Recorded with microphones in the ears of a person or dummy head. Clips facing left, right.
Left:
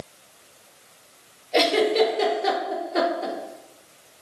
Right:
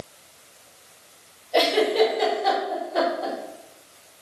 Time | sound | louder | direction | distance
1.5 | a giggle | even | 30° left (ahead or behind) | 4 m